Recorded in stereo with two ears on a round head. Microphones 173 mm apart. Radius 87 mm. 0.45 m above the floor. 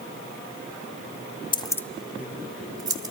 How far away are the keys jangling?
About 0.5 m.